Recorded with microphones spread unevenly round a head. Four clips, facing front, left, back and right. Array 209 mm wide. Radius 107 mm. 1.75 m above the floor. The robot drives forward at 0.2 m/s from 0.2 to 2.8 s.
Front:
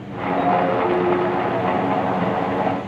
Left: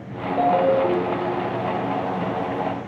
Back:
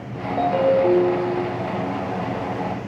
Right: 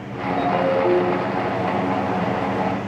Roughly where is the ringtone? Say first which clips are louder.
Left 2 dB, back 1 dB; behind left.